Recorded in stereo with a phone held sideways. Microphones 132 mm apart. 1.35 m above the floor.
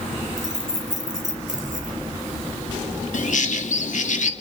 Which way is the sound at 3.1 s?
70° left (ahead or behind).